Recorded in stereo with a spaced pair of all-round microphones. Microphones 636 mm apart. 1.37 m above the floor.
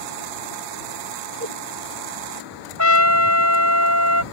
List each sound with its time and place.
1.4 s a whoosh: 60° right (ahead or behind)
2.8 s a trumpet: 25° left (ahead or behind)